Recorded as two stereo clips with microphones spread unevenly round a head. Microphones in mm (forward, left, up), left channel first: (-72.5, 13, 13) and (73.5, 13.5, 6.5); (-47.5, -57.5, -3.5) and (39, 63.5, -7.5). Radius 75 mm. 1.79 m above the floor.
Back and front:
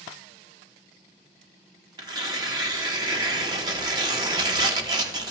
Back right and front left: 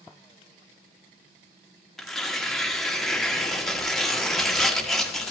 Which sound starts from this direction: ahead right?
Tearing paper, at 2.0 s.